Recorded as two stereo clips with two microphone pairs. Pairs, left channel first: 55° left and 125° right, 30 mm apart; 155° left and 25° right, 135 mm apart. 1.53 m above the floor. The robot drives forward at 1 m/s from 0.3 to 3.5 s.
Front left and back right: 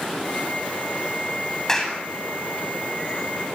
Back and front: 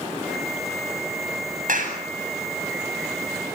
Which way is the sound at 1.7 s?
15° right.